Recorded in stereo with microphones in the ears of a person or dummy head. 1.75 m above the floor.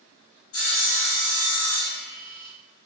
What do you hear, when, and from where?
0.5 s sawing: 75° left (ahead or behind), 1.1 m